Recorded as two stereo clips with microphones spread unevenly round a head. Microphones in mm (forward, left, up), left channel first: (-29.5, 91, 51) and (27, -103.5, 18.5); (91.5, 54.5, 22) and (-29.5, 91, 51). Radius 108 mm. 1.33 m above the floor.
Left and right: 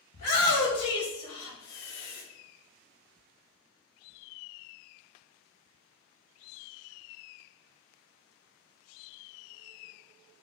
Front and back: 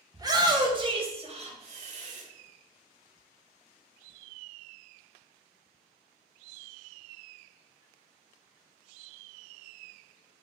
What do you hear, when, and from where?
0.1 s a shout: 100° left, 1.5 m; by 2.2 s 145° left, 1.4 m